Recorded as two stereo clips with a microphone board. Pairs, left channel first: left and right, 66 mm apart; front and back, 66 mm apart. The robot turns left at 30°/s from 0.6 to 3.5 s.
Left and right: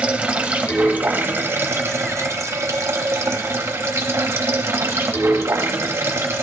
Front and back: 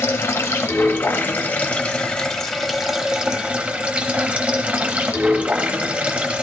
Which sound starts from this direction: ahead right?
Running water, at 0.0 s.